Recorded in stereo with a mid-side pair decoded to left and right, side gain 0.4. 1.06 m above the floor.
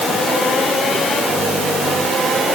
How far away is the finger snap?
No finger snap in this recording.